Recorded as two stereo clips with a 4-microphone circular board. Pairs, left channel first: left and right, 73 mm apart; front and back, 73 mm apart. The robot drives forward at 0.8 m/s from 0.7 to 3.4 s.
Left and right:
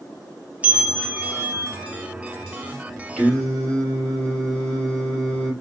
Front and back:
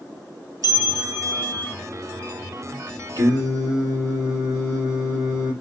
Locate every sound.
0.6 s a bell: 20° right, 1.1 m; by 1.8 s 70° right, 0.5 m
3.2 s singing: 170° left, 4 m